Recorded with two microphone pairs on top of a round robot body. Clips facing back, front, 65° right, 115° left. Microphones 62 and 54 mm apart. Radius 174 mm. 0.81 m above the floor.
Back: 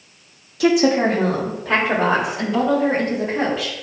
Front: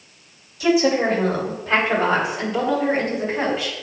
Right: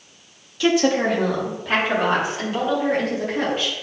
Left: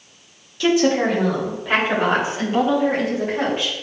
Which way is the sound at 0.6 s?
155° right.